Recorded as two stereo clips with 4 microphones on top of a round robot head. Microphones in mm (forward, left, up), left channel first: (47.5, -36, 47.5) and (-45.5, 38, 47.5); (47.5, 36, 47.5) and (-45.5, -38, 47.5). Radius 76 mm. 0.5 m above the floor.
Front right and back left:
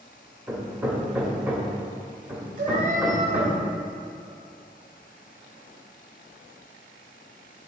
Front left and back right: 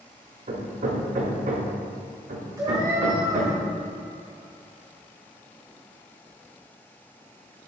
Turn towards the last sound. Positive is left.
turn(degrees=155)